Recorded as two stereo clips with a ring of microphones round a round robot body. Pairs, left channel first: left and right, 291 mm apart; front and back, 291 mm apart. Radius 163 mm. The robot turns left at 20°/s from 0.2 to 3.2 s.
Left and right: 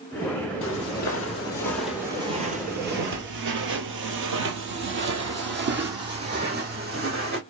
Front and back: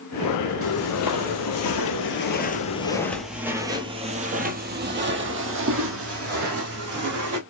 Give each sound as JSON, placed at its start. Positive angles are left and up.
{"t": 0.6, "sound": "footsteps", "azimuth_deg": 45, "distance_m": 1.6}